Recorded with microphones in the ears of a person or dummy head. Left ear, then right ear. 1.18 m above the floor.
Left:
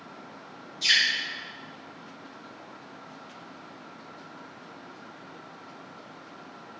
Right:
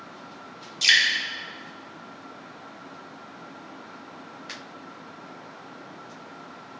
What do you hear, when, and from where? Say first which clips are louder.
0.8 s dripping: right 4 dB; 35° right (ahead or behind), 0.9 m